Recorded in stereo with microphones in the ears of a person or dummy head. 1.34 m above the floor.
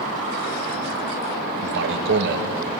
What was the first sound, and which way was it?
A man speaking, 65° right (ahead or behind).